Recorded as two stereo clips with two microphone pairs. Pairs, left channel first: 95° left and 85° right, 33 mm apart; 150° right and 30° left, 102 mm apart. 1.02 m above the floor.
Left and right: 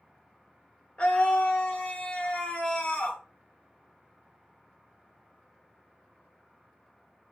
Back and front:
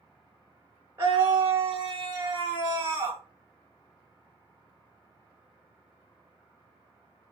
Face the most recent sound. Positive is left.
turn(degrees=70)